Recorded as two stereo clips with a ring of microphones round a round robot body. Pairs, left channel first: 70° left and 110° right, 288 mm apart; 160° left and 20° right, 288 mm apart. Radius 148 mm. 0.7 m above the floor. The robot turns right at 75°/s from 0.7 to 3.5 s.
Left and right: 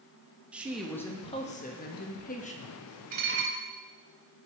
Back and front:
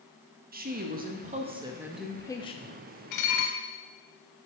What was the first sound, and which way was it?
A woman speaking, 30° right.